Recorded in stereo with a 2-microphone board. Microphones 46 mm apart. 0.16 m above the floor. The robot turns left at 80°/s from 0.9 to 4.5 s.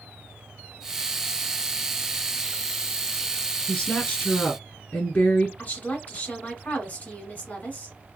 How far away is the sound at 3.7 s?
About 1.7 m.